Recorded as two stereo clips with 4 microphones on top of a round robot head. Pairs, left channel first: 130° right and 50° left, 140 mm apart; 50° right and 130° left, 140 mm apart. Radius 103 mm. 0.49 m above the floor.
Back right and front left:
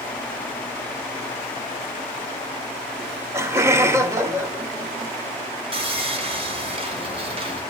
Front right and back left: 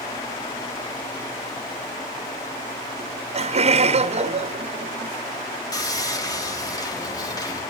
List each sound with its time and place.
3.0 s laughter: 115° left, 1.1 m
5.7 s sawing: 10° left, 2.5 m